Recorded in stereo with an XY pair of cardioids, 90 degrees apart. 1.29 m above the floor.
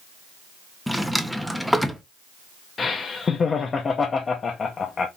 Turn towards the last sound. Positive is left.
turn(degrees=45)